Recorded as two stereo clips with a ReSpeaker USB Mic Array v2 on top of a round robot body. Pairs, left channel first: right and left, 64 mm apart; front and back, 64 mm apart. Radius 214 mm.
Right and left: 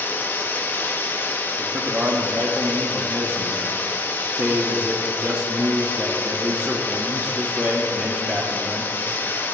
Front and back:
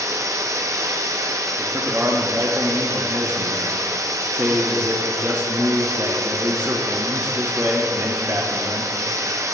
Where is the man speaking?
140° left, 1.2 m.